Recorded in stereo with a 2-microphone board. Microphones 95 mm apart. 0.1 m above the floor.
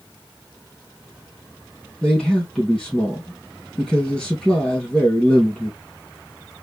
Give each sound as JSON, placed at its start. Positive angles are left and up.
{"t": 2.0, "sound": "a man speaking", "side_deg": 10, "distance_m": 2.5}